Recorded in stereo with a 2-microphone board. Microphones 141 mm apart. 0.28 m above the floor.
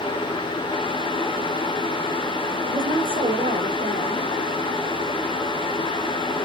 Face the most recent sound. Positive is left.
turn(degrees=-75)  # may be behind; listen again after turning